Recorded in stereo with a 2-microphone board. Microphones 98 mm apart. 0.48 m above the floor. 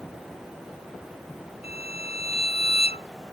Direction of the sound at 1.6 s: 85° left.